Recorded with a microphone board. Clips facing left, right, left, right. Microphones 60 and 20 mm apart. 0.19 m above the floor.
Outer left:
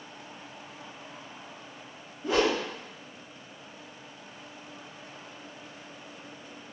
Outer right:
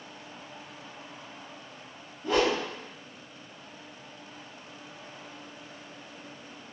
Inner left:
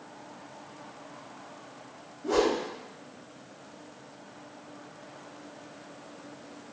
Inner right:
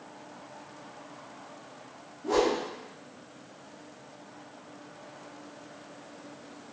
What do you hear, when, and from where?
2.2 s a whoosh: 10° left (ahead or behind), 1.7 m